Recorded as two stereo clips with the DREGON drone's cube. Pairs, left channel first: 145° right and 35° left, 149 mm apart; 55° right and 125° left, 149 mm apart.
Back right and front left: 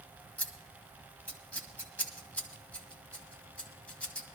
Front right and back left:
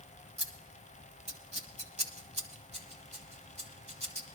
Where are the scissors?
135° left, 1.5 m.